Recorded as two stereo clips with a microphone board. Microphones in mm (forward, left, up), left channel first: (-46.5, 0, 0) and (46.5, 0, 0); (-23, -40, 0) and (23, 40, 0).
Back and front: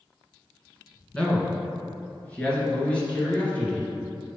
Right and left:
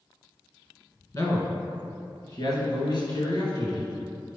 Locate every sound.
1.1 s a man speaking: 110° right, 1.6 m